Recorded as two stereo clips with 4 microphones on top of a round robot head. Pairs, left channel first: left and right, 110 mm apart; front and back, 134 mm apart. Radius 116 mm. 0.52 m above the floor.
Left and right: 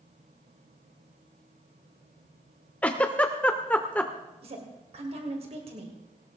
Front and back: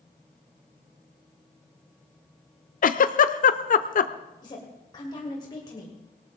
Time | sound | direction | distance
2.8 | a giggle | 10° left | 0.8 m
4.4 | a woman speaking | 60° right | 2.5 m